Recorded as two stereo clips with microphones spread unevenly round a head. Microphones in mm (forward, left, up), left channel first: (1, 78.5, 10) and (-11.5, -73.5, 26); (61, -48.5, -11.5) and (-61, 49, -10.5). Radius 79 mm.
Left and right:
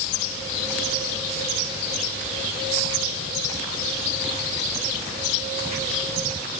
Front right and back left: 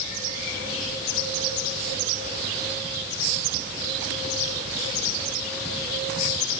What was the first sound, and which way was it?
Only background noise.